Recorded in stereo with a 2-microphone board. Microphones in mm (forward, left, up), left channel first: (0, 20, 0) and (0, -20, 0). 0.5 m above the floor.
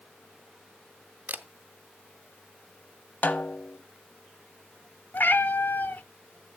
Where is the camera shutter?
50° right (ahead or behind), 0.6 m.